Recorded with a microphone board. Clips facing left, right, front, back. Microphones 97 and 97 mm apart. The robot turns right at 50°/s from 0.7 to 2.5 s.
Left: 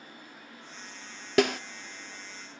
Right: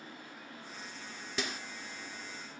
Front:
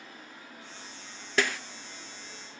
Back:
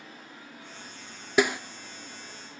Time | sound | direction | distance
1.4 | a snare drum | 105° left | 0.7 m